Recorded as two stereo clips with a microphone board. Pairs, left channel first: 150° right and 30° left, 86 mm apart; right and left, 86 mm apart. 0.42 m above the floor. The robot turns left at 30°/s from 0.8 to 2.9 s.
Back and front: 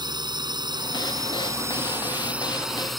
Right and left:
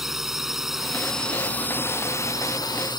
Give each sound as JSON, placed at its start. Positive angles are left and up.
{"t": 0.0, "sound": "a drone", "azimuth_deg": 5}